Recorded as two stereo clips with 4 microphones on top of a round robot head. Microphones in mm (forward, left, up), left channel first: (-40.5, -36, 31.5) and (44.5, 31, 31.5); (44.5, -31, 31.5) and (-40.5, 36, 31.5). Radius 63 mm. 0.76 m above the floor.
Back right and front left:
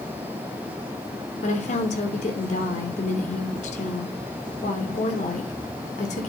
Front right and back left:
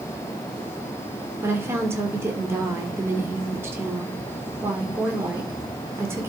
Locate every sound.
1.4 s a woman speaking: 150° right, 2 m